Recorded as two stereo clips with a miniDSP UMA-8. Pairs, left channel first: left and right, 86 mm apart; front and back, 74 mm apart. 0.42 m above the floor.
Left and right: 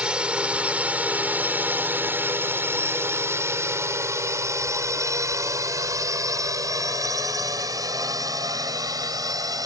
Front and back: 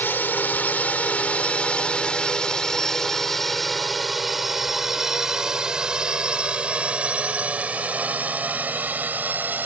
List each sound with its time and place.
0.0 s a drone: 25° right; by 9.7 s 120° right